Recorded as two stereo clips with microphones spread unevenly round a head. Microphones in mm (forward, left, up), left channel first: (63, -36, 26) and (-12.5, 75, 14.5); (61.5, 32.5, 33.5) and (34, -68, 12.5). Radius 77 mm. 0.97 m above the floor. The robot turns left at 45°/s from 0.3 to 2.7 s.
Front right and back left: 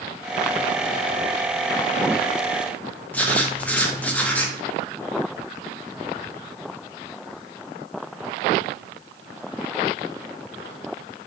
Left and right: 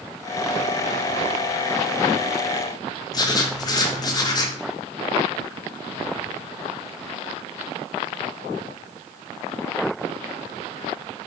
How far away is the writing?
About 0.8 m.